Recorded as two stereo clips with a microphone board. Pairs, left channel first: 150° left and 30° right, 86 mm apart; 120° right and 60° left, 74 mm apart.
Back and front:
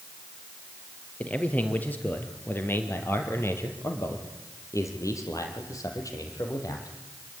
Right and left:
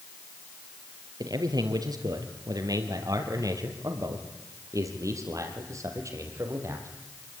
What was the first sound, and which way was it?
A man speaking, 80° left.